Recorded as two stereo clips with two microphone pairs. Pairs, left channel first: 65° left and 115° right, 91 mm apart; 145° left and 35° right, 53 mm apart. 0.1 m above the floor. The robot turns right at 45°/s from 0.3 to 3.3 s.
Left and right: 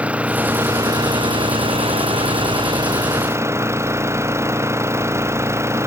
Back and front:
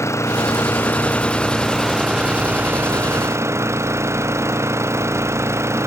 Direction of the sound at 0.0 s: 170° left.